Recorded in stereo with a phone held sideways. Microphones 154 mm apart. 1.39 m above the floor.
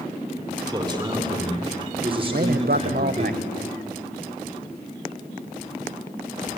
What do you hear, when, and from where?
0.7 s a man speaking: 25° right (ahead or behind), 5 m; by 3.3 s 45° right (ahead or behind), 4.5 m
2.3 s a man speaking: 80° right, 0.9 m